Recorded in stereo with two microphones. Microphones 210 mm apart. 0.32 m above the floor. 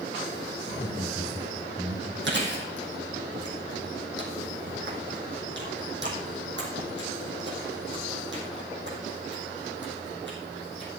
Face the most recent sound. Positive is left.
turn(degrees=-60)  # may be behind; listen again after turning